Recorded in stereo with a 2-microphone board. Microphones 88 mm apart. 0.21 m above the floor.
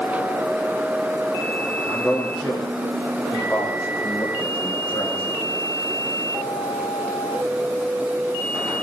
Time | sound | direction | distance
1.8 | a man speaking | centre (ahead or behind) | 8.5 m